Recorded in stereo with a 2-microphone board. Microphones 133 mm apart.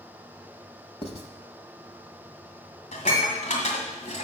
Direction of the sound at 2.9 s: 65° left (ahead or behind).